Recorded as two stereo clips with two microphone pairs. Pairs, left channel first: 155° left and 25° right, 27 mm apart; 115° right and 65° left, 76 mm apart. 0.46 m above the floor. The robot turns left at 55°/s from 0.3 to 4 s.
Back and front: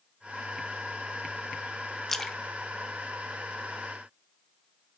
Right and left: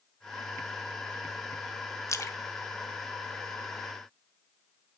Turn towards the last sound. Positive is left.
turn(degrees=125)